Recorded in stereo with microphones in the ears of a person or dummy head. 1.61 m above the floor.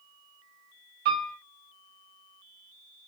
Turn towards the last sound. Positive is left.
turn(degrees=-50)  # may be behind; listen again after turning